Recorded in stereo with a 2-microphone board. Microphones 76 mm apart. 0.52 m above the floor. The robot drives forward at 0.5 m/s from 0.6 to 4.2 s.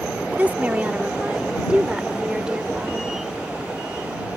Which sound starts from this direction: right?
A woman speaking, at 0.3 s.